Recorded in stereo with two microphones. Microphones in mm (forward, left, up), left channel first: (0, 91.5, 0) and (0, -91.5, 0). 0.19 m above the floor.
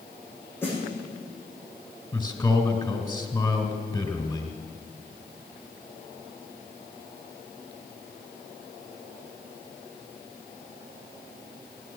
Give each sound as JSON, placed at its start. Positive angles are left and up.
{"t": 0.6, "sound": "a snare drum", "side_deg": 10, "distance_m": 7.5}
{"t": 2.1, "sound": "a man speaking", "side_deg": 20, "distance_m": 1.9}